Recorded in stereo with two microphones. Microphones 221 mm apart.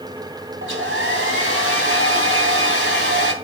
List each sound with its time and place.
0.6 s a hair dryer: 65° right (ahead or behind), 2.5 m